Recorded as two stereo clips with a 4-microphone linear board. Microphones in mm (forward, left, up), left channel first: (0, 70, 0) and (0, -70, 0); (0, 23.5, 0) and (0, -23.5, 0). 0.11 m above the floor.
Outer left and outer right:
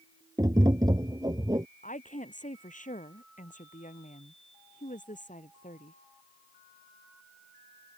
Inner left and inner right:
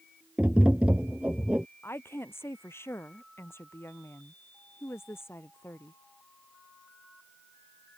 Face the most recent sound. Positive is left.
turn(degrees=65)  # may be behind; listen again after turning